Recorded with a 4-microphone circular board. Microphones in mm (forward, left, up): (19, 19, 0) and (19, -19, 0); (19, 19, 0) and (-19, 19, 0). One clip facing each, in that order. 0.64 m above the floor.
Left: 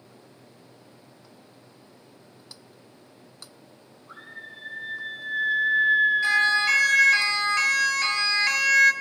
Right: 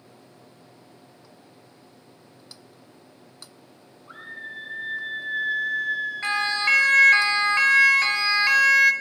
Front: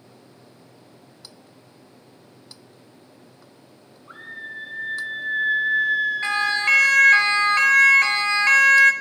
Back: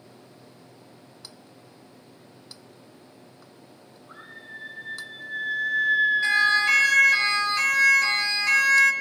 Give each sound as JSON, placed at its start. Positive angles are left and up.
{"t": 4.1, "sound": "a scream", "azimuth_deg": -30, "distance_m": 2.0}
{"t": 6.2, "sound": "a siren", "azimuth_deg": -40, "distance_m": 2.5}